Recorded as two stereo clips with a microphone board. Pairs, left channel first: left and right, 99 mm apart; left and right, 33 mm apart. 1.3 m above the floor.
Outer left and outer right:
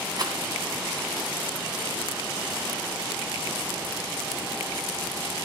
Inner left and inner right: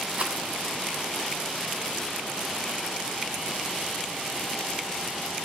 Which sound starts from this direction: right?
A rattle, at 0.2 s.